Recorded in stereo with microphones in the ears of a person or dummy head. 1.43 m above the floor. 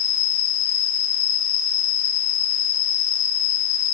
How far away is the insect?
About 2 m.